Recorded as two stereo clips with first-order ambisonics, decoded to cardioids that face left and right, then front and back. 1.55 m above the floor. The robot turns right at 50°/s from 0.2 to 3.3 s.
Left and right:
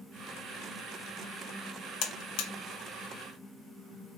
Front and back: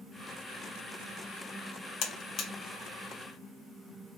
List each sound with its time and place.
2.0 s a buzzer: 50° left, 0.6 m; by 2.5 s 75° left, 0.6 m